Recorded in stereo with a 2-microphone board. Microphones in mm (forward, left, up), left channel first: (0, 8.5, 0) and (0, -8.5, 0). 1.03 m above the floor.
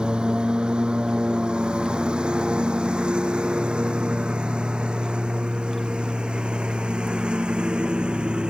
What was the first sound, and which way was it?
A lawn mower, 65° right (ahead or behind).